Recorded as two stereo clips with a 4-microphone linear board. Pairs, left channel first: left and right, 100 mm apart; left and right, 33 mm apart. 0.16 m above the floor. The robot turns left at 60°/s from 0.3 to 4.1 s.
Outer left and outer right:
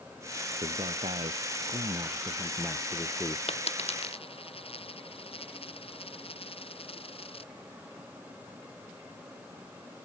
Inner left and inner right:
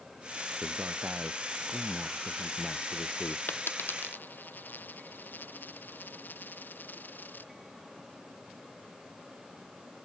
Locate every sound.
0.6 s a man speaking: 50° right; by 3.4 s 140° left
3.5 s a dropped coin: 75° left (ahead or behind); by 7.5 s 70° left (ahead or behind)